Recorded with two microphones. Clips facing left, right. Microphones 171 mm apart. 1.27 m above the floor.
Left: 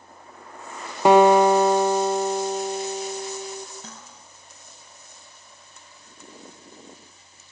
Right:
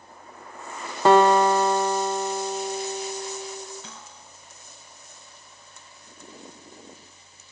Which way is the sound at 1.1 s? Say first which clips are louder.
Left 3 dB; 15° left (ahead or behind).